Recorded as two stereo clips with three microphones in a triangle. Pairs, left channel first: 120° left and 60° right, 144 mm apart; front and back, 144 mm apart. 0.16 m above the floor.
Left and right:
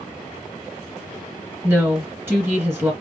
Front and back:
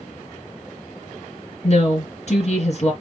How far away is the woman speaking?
About 2 m.